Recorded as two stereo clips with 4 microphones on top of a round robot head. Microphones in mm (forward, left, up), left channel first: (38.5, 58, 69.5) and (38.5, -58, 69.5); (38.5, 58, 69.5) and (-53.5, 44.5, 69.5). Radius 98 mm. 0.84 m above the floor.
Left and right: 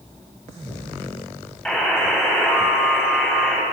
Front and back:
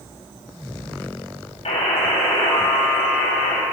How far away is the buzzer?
About 5.5 m.